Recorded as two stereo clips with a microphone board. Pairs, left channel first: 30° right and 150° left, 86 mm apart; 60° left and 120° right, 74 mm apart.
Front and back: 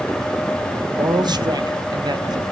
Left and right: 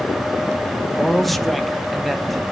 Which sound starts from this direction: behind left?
A man speaking, at 0.9 s.